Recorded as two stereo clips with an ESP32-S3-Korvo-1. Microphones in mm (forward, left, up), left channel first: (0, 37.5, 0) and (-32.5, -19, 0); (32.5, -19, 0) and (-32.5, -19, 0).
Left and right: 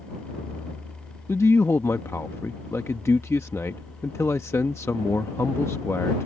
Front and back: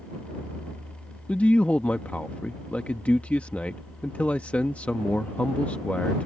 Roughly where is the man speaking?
Ahead left.